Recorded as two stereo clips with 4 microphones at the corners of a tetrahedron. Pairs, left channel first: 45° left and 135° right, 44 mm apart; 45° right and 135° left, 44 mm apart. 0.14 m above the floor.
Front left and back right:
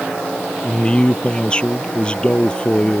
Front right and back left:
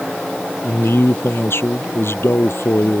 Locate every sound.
0.6 s a man speaking: 25° right